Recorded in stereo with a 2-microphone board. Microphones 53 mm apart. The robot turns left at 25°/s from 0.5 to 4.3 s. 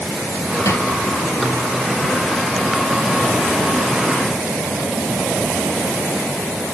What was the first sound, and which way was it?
A drawer, 65° left (ahead or behind).